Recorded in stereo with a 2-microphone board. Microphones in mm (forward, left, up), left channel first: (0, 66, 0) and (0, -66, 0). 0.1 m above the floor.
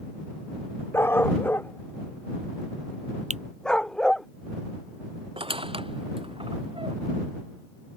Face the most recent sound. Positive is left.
turn(degrees=-45)  # may be behind; listen again after turning